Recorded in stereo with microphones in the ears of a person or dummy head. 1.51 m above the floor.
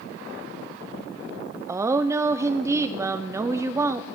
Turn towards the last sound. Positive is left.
turn(degrees=-15)  # may be behind; listen again after turning